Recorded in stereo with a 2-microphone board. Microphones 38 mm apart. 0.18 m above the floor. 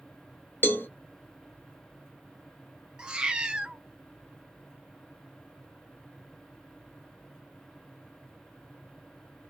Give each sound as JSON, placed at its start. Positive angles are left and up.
{"t": 0.6, "sound": "a cowbell", "side_deg": 65, "distance_m": 0.5}
{"t": 3.0, "sound": "a cat meowing", "side_deg": -25, "distance_m": 0.5}